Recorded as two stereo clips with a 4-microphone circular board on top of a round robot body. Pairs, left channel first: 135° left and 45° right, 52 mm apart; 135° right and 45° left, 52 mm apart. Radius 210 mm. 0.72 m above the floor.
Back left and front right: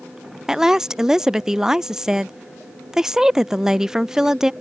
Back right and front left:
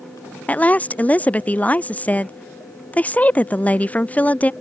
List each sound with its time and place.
0.5 s a woman speaking: 115° right